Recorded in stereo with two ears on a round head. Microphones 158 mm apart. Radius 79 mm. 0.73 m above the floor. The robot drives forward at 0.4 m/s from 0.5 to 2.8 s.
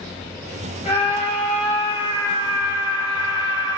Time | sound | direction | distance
0.8 | a scream | 35° left (ahead or behind) | 2 m